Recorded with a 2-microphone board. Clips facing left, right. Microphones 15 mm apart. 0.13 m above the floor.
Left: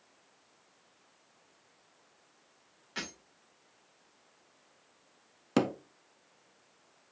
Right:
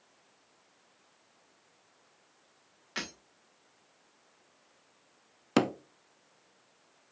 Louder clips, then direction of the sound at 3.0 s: Right 2 dB; 30° right (ahead or behind).